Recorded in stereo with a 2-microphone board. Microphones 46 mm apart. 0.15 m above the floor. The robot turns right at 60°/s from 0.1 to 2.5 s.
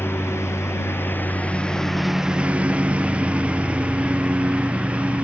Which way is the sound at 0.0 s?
65° left.